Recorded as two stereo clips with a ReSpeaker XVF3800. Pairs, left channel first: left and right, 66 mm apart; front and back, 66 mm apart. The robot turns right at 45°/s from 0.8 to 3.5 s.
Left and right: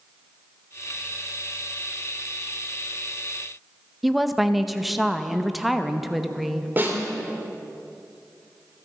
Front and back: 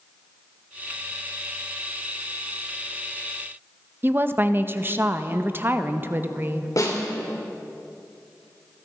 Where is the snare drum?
30° right, 2.5 m.